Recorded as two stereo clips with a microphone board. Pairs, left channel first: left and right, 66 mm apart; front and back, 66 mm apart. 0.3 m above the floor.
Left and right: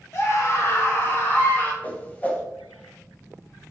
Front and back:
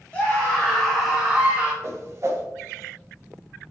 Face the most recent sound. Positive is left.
turn(degrees=150)